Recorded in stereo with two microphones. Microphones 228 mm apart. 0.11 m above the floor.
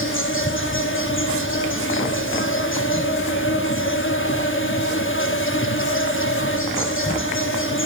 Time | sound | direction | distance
0.0 | an insect | 60° left (ahead or behind) | 3.5 m